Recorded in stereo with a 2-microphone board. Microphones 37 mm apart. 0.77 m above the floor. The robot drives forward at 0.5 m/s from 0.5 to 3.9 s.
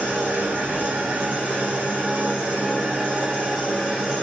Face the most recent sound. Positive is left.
turn(degrees=-25)  # may be behind; listen again after turning